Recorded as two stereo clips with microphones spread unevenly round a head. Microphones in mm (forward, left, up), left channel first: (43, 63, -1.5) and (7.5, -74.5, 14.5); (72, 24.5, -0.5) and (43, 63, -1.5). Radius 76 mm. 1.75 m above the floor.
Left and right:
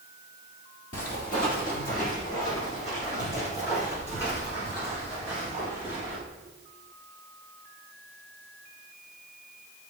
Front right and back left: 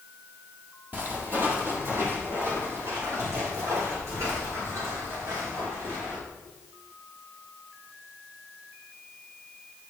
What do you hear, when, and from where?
0.9 s footsteps: 85° left, 2.5 m; by 6.2 s 135° left, 6 m